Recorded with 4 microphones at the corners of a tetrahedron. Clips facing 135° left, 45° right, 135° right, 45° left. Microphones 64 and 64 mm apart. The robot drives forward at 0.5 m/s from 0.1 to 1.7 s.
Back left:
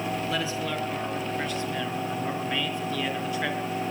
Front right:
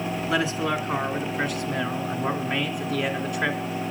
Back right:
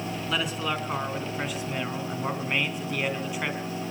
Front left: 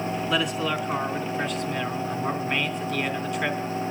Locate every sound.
0.3 s a man speaking: 45° right, 3.5 m; by 3.6 s 55° right, 3 m